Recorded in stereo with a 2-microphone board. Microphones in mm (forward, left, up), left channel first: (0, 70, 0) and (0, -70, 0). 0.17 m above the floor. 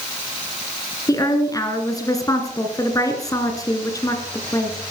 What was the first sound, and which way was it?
A woman speaking, 25° left (ahead or behind).